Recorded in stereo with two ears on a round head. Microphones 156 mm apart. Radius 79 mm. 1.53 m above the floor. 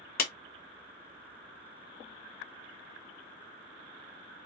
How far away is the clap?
About 1.1 m.